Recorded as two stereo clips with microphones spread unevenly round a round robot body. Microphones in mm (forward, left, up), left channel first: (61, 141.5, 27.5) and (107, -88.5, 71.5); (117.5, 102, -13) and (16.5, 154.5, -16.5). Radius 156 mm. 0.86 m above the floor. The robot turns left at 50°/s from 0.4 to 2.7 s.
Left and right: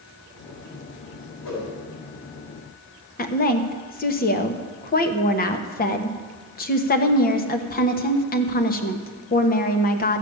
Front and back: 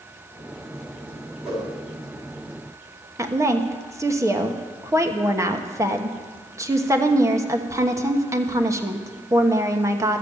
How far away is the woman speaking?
About 1.2 m.